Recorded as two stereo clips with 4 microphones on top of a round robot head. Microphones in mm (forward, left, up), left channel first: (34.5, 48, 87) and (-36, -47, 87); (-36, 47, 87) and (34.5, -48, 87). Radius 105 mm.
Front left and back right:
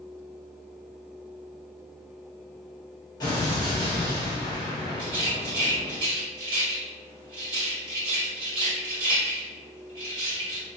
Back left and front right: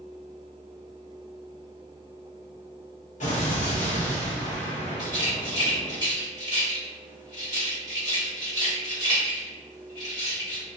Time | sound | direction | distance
3.2 | an explosion | 110° left | 1.0 m
5.0 | a rattle | 175° right | 1.5 m